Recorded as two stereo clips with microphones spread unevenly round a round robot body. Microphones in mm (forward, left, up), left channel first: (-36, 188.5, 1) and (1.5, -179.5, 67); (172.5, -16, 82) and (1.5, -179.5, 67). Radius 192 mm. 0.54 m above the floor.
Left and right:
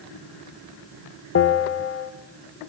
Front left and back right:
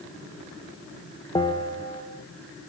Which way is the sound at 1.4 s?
110° left.